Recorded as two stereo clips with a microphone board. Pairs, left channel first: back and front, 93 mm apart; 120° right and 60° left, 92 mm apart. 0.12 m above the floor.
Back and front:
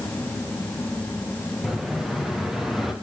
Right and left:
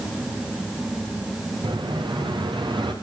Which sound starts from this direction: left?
An explosion, at 1.6 s.